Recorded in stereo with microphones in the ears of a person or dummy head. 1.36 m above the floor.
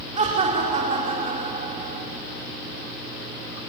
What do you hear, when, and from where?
0.2 s laughter: 35° right (ahead or behind), 4 m